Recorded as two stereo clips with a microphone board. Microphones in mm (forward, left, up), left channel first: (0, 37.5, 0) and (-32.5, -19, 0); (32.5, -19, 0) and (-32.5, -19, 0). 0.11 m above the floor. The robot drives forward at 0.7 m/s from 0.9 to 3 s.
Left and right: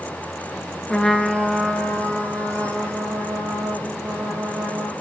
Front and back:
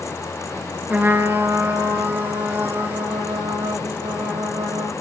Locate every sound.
0.9 s a trumpet: 130° left, 0.6 m; by 4.9 s 170° left, 1.8 m